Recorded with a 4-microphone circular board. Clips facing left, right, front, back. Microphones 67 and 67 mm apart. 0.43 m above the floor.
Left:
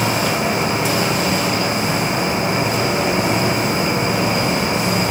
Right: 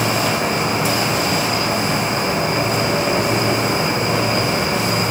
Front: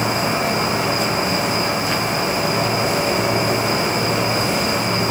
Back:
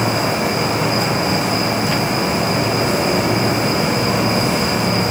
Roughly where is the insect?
Behind.